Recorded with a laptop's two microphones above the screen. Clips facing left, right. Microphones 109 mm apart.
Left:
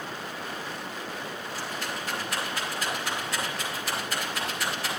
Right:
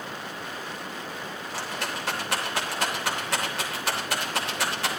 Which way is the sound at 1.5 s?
90° right.